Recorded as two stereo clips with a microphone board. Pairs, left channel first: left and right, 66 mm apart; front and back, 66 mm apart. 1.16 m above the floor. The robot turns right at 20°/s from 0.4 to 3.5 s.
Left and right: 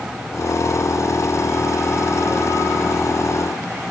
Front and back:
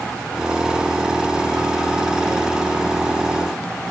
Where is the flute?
I don't hear a flute.